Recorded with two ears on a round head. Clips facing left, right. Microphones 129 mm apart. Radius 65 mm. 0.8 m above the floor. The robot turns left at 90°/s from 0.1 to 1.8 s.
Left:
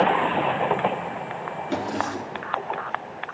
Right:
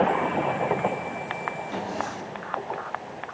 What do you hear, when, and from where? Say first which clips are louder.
1.7 s a drawer: left 7 dB; 80° left, 2.5 m